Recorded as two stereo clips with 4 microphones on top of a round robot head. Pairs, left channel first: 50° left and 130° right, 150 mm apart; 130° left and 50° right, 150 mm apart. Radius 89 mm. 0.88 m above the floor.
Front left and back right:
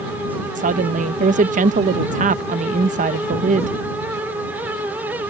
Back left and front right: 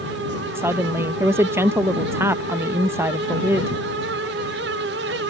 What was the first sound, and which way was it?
A woman speaking, 120° right.